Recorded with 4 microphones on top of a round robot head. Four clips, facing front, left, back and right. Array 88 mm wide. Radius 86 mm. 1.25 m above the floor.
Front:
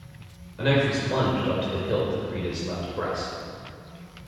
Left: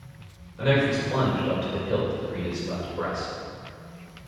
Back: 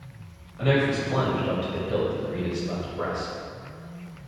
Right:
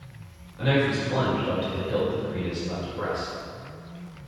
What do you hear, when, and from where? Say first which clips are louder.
0.6 s a man speaking: left 1 dB, even; 20° left, 5 m